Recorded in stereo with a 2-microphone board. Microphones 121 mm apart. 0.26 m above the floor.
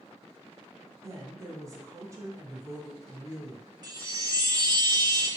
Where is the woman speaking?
25° right (ahead or behind), 1.0 m.